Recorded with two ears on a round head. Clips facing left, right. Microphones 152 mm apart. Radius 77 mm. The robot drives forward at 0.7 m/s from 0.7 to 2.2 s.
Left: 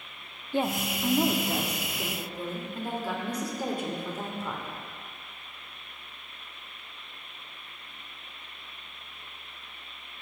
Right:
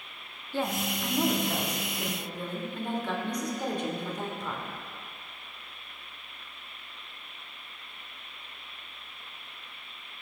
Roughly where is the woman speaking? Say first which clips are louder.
Left 2 dB; centre.